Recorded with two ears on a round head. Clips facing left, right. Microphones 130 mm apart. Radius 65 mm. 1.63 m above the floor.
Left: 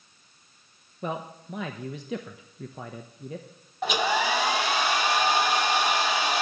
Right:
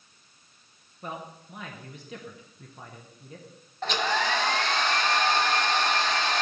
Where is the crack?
I don't hear a crack.